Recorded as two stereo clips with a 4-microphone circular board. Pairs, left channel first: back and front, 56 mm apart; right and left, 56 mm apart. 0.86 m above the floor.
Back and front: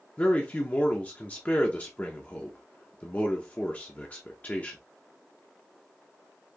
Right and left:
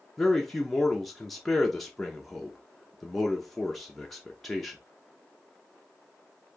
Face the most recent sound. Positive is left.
turn(degrees=-175)